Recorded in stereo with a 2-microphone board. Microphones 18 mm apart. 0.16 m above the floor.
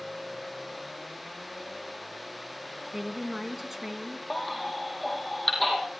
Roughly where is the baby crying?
Centre.